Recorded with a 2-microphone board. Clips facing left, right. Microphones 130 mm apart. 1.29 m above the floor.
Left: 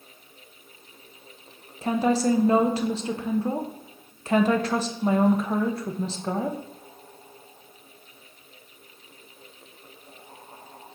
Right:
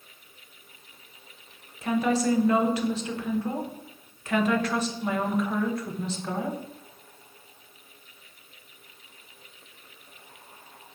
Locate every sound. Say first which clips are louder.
1.8 s a woman speaking: left 2 dB; 30° left (ahead or behind), 0.5 m